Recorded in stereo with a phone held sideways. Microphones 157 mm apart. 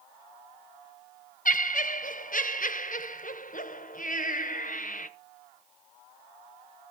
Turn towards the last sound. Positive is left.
turn(degrees=60)  # may be behind; listen again after turning